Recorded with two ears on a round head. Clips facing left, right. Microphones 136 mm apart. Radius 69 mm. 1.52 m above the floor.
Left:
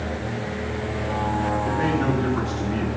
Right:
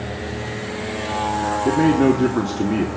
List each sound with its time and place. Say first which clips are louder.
1.6 s a man speaking: right 12 dB; 65° right (ahead or behind), 1.5 m